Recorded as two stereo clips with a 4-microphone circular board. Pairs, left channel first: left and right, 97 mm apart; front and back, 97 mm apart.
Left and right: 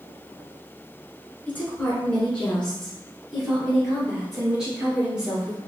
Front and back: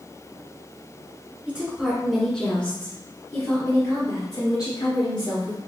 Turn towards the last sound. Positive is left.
turn(degrees=-10)